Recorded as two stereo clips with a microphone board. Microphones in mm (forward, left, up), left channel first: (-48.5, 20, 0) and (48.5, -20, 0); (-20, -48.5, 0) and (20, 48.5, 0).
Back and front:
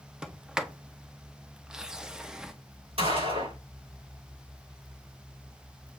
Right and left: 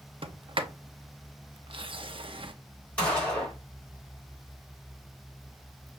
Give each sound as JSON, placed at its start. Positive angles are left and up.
{"t": 0.2, "sound": "a sliding door", "azimuth_deg": 60, "distance_m": 0.5}
{"t": 3.0, "sound": "a gunshot", "azimuth_deg": -35, "distance_m": 3.5}